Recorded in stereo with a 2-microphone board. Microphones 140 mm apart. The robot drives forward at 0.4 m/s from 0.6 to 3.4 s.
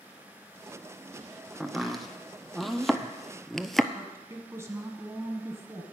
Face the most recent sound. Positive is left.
turn(degrees=-20)  # may be behind; listen again after turning